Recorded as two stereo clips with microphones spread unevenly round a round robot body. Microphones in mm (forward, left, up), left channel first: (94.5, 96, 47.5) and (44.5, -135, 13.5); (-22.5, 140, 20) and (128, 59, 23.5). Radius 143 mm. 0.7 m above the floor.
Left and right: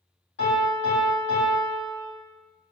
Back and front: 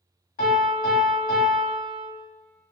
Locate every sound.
0.4 s a piano: 125° left, 1.9 m